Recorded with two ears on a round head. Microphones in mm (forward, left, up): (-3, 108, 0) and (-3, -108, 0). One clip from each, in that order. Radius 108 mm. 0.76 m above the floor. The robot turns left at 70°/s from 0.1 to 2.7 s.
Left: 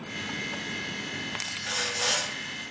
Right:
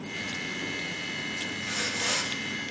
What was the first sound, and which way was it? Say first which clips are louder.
Sawing: left 2 dB; 90° left.